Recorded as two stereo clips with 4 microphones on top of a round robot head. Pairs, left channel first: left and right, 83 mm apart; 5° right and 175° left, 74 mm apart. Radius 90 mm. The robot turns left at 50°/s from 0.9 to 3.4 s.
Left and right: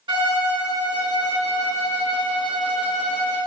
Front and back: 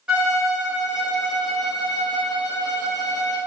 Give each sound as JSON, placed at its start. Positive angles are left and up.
{"t": 0.1, "sound": "a violin", "azimuth_deg": -105, "distance_m": 0.6}